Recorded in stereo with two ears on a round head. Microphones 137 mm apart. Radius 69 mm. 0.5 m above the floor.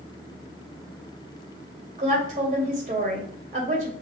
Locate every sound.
2.0 s a woman speaking: 55° right (ahead or behind), 2.5 m